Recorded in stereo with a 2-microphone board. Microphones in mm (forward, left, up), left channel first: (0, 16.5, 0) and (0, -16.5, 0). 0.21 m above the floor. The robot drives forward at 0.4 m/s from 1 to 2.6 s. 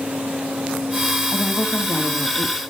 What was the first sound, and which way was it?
A woman speaking, centre (ahead or behind).